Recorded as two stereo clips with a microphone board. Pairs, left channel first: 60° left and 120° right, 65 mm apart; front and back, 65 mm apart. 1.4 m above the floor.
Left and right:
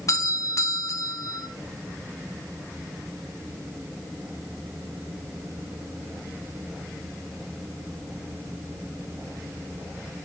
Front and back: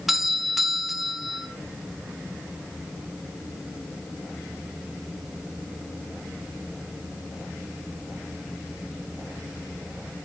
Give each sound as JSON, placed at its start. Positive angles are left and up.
{"t": 0.1, "sound": "a doorbell", "azimuth_deg": 95, "distance_m": 3.0}